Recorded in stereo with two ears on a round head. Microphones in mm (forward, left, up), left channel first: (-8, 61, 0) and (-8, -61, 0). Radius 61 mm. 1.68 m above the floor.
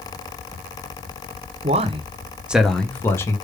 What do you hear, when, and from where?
1.6 s a man speaking: 50° right (ahead or behind), 0.8 m; by 3.4 s 20° left (ahead or behind), 1.2 m